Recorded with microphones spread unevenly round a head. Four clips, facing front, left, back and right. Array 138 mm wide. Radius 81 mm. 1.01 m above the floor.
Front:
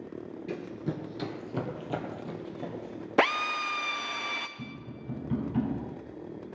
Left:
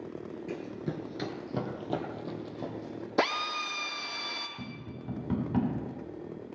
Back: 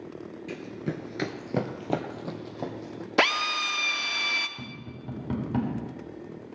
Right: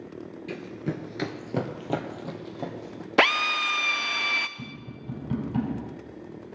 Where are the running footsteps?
5° left, 1.1 m; by 3.1 s 150° right, 3.5 m.